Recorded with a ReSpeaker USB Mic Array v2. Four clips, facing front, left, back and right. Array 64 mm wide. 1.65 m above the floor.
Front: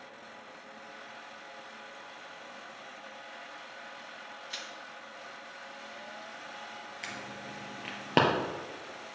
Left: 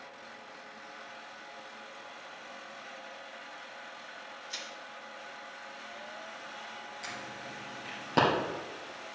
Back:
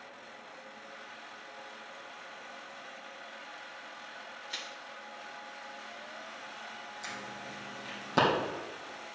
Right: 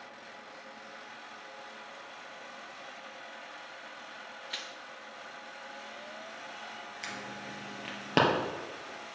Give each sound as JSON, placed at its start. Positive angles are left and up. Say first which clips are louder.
{"t": 4.5, "sound": "crushing", "louder": "right 2 dB, back 1 dB", "azimuth_deg": -90, "distance_m": 0.9}
{"t": 7.0, "sound": "an alarm", "louder": "right 2 dB, front 1 dB", "azimuth_deg": -25, "distance_m": 2.0}